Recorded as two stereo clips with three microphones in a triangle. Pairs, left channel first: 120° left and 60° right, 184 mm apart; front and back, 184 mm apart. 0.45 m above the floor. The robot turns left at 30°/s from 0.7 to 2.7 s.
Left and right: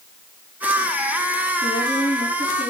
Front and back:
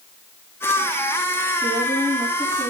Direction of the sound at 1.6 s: 140° left.